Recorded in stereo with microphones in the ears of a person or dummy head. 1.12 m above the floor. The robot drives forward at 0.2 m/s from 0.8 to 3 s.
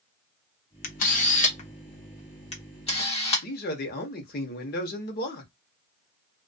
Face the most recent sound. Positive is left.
turn(degrees=45)  # may be behind; listen again after turning